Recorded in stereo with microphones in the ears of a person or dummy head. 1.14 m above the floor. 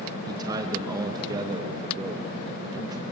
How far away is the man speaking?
About 1.4 m.